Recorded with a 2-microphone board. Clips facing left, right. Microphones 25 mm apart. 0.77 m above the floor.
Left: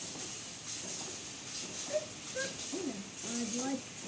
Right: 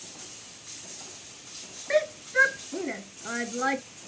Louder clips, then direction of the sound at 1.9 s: Right 14 dB; 65° right (ahead or behind).